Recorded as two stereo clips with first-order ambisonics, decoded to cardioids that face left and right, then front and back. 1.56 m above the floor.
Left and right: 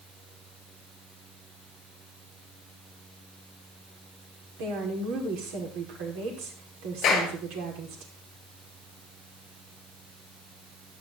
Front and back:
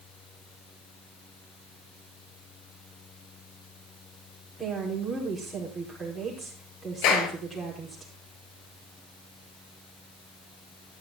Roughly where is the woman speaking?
Right.